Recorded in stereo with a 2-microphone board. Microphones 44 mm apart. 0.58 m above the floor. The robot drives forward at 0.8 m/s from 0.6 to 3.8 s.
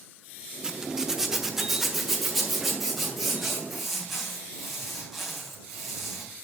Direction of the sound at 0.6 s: 15° right (ahead or behind).